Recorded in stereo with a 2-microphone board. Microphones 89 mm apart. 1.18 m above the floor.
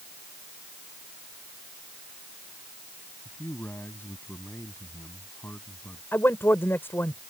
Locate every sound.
3.2 s a man speaking: 25° left (ahead or behind); by 6.0 s 20° left (ahead or behind)
6.1 s a man speaking: 25° left (ahead or behind)